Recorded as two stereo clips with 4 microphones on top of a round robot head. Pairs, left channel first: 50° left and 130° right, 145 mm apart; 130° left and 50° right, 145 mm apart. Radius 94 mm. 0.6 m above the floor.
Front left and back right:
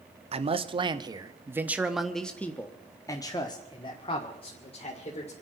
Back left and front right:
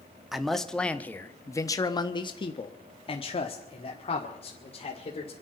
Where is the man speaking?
135° right, 1.4 m; by 5.3 s 90° left, 2.5 m.